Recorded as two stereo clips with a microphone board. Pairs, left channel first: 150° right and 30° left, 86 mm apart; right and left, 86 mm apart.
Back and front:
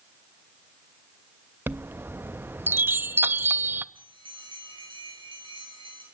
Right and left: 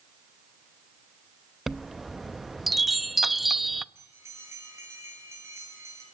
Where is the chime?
Straight ahead, 0.5 m.